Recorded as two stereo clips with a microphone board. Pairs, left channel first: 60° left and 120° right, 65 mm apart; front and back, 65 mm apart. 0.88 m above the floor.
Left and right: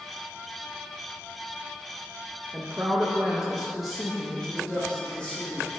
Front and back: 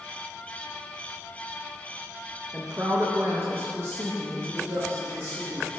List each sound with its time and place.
2.5 s a woman speaking: 125° right, 0.8 m; by 5.7 s 135° left, 2 m